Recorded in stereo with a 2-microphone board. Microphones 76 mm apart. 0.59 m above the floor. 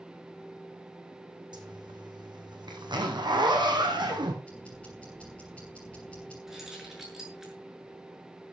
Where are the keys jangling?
5° right (ahead or behind), 7.5 m.